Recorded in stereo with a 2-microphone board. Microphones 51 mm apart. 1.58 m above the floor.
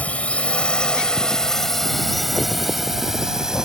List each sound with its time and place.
0.0 s a drone: 30° left (ahead or behind); by 3.6 s 10° right (ahead or behind)